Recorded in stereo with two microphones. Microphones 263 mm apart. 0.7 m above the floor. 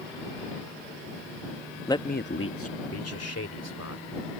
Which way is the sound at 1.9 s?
10° left (ahead or behind).